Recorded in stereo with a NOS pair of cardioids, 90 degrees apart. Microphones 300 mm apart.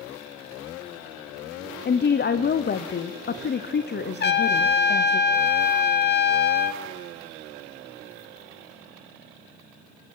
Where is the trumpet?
30° left, 1.2 m.